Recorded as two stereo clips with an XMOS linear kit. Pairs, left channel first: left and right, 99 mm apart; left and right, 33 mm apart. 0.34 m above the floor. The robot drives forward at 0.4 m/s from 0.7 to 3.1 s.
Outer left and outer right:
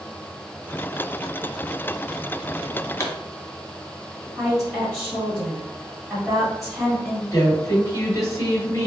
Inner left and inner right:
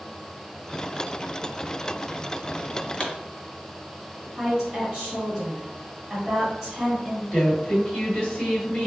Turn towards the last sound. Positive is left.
turn(degrees=35)  # may be behind; listen again after turning